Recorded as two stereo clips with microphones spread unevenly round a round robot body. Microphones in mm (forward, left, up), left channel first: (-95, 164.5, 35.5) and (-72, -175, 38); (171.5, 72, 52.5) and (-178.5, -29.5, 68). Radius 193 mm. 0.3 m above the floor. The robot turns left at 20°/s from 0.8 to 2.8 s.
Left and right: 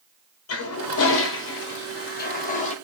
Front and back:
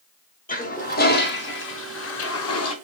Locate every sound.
0.5 s a toilet flushing: 70° left, 1.0 m; by 2.7 s 35° left, 1.0 m